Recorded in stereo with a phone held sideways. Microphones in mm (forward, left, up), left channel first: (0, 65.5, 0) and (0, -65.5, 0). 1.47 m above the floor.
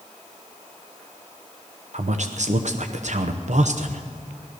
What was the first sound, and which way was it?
A man speaking, 65° right (ahead or behind).